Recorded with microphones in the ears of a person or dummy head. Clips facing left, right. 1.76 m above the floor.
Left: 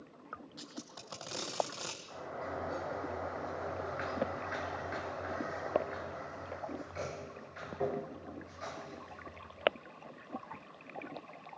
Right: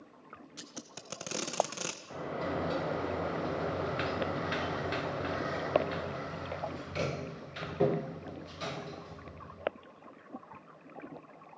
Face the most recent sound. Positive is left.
turn(degrees=-40)  # may be behind; listen again after turning